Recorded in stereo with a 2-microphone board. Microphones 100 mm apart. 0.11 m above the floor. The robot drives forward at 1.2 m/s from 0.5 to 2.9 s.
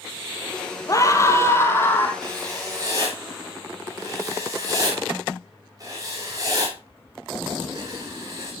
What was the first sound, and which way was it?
A scream, 35° left (ahead or behind).